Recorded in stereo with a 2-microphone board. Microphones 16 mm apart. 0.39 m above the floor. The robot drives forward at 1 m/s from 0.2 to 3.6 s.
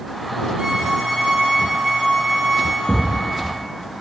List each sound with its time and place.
0.6 s a violin: 45° right (ahead or behind), 1.6 m; by 2.8 s 20° right (ahead or behind), 3.5 m
2.9 s a thud: 40° left (ahead or behind), 3.5 m; by 3.2 s 35° left (ahead or behind), 3.5 m